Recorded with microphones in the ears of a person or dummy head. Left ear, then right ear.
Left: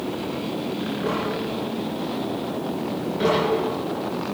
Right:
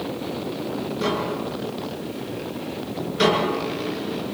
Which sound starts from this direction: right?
Tapping, at 1.0 s.